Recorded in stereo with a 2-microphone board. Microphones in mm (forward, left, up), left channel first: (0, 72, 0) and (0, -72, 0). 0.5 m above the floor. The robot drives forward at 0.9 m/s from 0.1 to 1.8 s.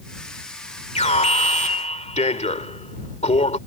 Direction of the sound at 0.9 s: 50° left (ahead or behind).